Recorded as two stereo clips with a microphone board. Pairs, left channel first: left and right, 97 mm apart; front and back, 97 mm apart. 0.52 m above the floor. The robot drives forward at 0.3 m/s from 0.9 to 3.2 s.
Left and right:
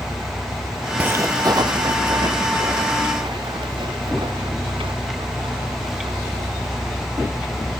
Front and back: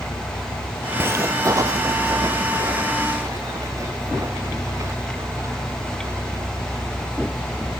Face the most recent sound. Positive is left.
turn(degrees=-120)